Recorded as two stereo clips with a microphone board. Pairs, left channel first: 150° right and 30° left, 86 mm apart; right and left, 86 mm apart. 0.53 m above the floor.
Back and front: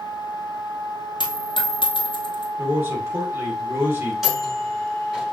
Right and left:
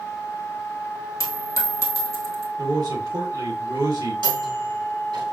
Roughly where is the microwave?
Behind left.